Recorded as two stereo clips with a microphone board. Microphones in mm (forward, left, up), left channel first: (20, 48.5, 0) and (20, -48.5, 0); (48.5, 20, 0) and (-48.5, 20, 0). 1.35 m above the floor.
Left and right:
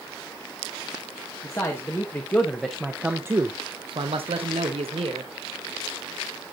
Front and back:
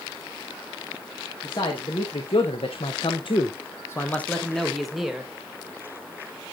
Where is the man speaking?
30° left, 1.5 m; by 5.3 s 95° right, 1.4 m.